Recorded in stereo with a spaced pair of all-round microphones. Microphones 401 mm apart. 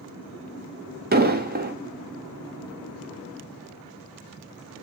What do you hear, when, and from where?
1.1 s an explosion: 25° right (ahead or behind), 0.5 m